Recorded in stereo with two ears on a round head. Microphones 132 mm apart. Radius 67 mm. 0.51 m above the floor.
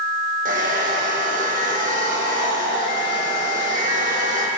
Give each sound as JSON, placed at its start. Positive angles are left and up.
{"t": 0.5, "sound": "a hair dryer", "side_deg": -55, "distance_m": 5.5}